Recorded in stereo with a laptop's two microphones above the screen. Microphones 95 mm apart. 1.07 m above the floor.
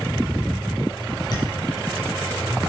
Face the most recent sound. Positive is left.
turn(degrees=45)  # may be behind; listen again after turning